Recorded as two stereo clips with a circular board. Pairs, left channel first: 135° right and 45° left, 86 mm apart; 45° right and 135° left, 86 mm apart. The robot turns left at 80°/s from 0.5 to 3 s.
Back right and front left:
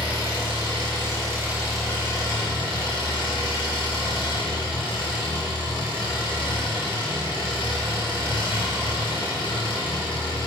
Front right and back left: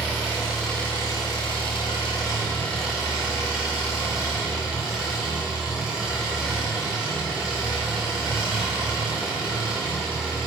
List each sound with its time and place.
0.0 s an engine running: 55° left, 2.5 m; by 10.5 s 145° right, 2.5 m